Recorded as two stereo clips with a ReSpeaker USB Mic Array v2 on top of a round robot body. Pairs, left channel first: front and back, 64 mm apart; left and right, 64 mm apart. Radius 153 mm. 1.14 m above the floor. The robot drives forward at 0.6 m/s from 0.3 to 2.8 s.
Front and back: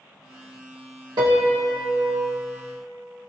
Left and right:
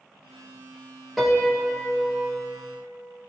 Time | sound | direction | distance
1.2 | a piano | straight behind | 1.0 m